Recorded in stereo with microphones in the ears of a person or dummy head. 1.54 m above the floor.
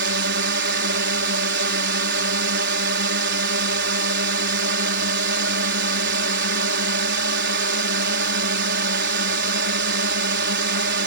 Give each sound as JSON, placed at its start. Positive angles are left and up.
{"t": 0.0, "sound": "a drone", "side_deg": -55}